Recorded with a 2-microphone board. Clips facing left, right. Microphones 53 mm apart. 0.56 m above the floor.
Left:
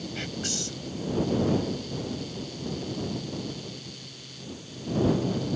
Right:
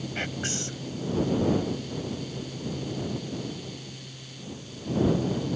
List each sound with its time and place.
0.1 s whispering: 30° right (ahead or behind)